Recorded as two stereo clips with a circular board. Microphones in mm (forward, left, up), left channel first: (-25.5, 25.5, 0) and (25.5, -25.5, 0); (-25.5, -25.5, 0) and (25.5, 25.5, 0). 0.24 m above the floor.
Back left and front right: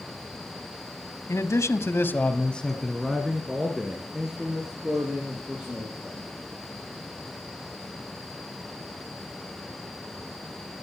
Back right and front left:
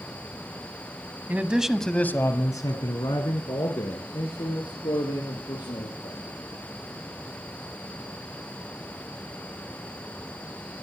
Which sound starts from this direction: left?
A man speaking, at 1.3 s.